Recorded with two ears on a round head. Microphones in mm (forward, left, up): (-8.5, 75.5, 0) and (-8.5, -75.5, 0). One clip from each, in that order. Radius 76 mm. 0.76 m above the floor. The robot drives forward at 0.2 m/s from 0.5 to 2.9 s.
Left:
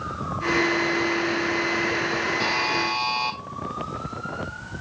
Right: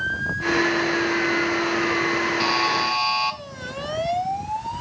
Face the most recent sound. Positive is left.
turn(degrees=-20)  # may be behind; listen again after turning